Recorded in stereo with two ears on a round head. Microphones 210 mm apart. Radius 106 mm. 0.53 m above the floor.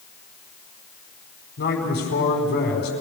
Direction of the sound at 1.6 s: 50° left (ahead or behind).